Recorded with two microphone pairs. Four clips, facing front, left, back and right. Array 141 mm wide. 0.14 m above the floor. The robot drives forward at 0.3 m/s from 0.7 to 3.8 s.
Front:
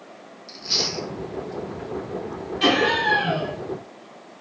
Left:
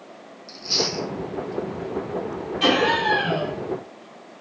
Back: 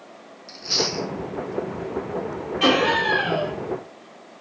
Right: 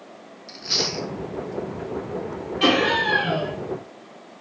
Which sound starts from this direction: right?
Chewing, at 0.5 s.